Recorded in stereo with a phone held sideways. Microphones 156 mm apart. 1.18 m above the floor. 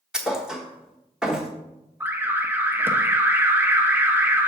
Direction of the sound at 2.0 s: 15° right (ahead or behind).